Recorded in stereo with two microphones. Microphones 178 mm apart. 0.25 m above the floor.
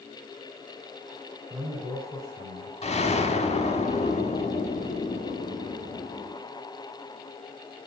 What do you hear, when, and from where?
1.5 s a man speaking: 20° right (ahead or behind), 2.5 m
2.8 s an explosion: 40° left (ahead or behind), 0.8 m